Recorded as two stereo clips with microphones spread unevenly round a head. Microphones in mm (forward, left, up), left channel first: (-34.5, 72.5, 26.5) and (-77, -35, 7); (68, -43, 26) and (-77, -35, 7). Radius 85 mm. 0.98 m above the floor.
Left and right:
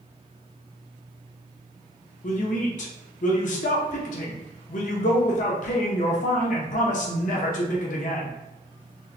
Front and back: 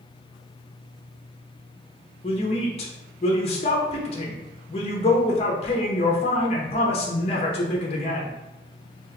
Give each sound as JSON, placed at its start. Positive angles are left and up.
{"t": 2.2, "sound": "a woman speaking", "azimuth_deg": 50, "distance_m": 1.0}